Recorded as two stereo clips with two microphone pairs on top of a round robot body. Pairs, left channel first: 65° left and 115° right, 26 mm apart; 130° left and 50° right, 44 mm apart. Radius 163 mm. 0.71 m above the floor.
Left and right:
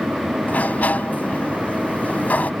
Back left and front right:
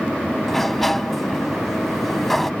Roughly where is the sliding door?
Ahead left.